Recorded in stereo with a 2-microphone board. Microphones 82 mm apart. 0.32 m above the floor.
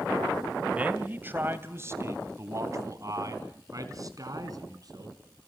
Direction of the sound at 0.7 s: 20° right (ahead or behind).